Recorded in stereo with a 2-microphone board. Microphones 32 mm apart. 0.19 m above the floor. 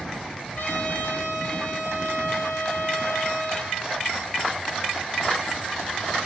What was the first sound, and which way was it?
A trumpet, 85° left.